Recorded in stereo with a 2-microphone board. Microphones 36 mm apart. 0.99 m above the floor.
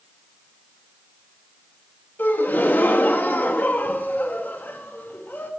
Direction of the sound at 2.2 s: 65° left (ahead or behind).